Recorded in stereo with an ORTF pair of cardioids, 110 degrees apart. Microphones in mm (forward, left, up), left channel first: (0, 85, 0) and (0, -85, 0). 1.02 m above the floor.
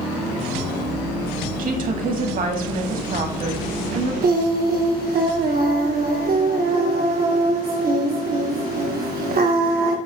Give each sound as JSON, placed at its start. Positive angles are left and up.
{"t": 1.6, "sound": "a woman speaking", "azimuth_deg": -55, "distance_m": 1.6}
{"t": 4.2, "sound": "singing", "azimuth_deg": -60, "distance_m": 1.1}